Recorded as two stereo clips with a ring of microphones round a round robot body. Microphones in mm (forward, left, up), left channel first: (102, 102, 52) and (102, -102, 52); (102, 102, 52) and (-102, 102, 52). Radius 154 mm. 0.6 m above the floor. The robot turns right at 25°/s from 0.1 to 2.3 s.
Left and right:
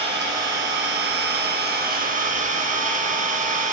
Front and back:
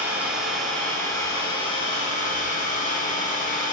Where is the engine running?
100° right, 1.1 m; by 3.7 s 45° right, 1.1 m.